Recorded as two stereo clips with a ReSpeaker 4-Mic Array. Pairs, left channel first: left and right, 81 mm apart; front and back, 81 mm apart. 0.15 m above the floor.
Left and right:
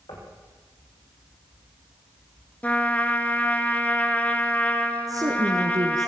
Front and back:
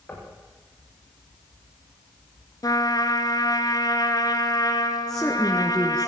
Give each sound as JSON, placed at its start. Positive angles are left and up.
{"t": 0.1, "sound": "knocking", "azimuth_deg": 70, "distance_m": 7.0}
{"t": 2.6, "sound": "a trumpet", "azimuth_deg": 20, "distance_m": 2.0}
{"t": 5.1, "sound": "a woman speaking", "azimuth_deg": -80, "distance_m": 2.5}